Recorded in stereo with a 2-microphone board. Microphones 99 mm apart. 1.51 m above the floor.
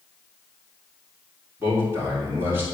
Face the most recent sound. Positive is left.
turn(degrees=-25)  # may be behind; listen again after turning